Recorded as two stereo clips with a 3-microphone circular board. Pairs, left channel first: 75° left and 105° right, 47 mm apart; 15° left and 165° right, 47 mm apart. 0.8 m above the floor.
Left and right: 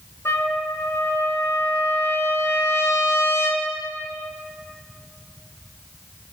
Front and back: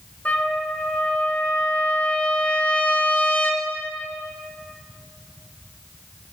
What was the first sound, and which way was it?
A trumpet, 75° left.